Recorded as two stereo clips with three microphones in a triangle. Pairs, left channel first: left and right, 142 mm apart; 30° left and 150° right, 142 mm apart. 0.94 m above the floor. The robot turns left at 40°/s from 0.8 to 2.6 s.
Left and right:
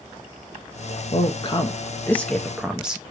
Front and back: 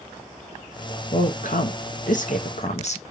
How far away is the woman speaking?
About 0.7 m.